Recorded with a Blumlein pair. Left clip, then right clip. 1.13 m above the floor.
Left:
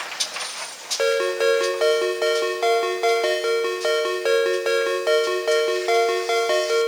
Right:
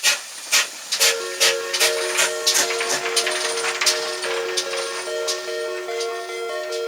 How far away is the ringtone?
About 0.7 m.